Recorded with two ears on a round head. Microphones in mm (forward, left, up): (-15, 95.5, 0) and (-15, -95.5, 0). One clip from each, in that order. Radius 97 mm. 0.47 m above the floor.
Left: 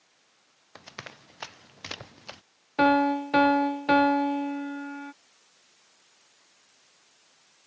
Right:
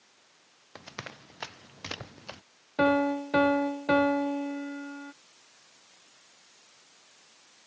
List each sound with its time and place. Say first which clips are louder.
0.8 s running footsteps: right 1 dB; 15° left (ahead or behind); by 2.4 s 25° left (ahead or behind)
2.8 s a piano: left 3 dB; 40° left (ahead or behind)